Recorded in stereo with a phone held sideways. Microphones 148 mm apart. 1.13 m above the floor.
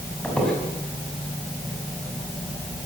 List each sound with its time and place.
0.2 s a squeak: 5° left (ahead or behind), 5.5 m